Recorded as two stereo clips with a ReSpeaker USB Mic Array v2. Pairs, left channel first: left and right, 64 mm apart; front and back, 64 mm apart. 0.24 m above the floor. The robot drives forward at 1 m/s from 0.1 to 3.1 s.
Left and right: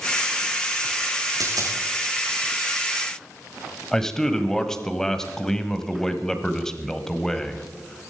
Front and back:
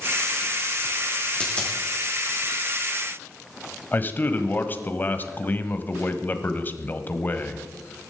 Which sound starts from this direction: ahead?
A man speaking, at 3.9 s.